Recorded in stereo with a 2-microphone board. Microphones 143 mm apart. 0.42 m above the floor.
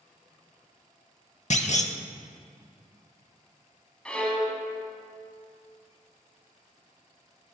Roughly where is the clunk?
Left.